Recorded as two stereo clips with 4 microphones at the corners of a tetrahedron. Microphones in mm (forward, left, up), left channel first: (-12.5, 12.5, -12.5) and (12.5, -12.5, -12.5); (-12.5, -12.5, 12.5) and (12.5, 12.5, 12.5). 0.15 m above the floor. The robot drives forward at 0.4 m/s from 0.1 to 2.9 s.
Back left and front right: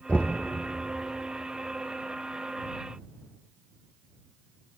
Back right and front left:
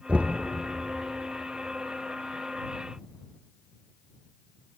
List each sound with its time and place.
0.1 s knocking: 90° left, 2.5 m